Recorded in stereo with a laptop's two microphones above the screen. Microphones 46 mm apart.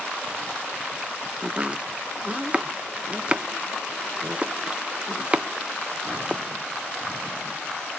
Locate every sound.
1.4 s chopping: 25° right (ahead or behind), 0.5 m